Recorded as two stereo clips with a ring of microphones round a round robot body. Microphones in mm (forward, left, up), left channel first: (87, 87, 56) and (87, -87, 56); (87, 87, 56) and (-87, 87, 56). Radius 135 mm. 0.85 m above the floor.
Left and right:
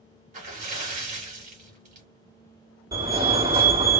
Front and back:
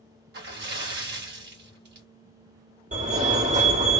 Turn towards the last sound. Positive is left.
turn(degrees=-155)